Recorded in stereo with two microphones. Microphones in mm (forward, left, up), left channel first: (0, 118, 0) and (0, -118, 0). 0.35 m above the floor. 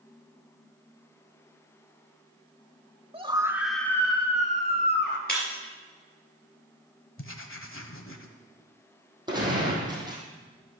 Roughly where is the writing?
Left.